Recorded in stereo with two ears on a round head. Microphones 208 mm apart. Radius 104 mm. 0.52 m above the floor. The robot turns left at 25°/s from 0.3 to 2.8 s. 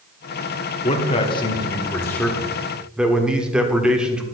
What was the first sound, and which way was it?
A man speaking, 45° left.